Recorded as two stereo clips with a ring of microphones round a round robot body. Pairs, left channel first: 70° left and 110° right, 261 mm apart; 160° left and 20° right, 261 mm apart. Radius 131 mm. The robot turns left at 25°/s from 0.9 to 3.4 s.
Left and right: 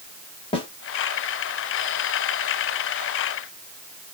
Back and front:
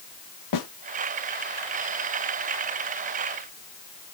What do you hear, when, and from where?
0.5 s a snare drum: 140° left, 1.7 m